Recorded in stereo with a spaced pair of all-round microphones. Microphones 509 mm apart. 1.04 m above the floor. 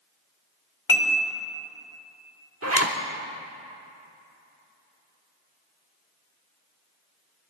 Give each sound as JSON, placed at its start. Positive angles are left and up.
{"t": 0.9, "sound": "dishes clattering", "side_deg": 65, "distance_m": 1.3}
{"t": 2.6, "sound": "a zipper", "side_deg": -30, "distance_m": 0.9}